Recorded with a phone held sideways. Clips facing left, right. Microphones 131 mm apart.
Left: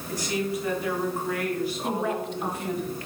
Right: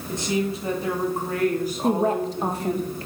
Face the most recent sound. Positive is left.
turn(degrees=-40)  # may be behind; listen again after turning